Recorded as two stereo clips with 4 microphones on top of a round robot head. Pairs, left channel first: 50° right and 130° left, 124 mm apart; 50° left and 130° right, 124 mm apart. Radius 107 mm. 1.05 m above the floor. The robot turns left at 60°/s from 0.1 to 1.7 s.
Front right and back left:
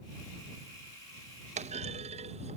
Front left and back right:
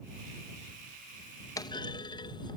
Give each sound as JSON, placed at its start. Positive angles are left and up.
{"t": 1.6, "sound": "a clunk", "azimuth_deg": 110}